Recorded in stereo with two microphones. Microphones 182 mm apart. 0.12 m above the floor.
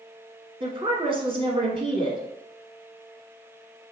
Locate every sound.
0.6 s a woman speaking: 30° right (ahead or behind), 1.2 m